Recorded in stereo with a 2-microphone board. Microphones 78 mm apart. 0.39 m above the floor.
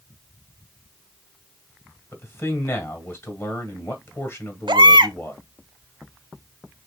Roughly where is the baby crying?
Right.